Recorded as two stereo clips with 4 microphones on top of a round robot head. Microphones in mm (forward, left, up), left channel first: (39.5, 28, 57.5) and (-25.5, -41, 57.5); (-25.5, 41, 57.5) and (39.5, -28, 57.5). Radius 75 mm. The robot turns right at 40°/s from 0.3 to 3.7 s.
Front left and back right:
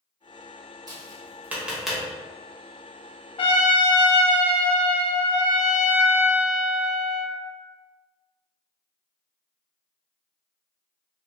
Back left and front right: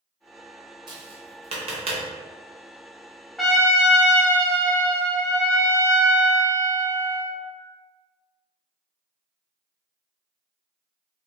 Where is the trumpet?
45° left, 0.8 m; by 7.3 s 55° left, 0.8 m.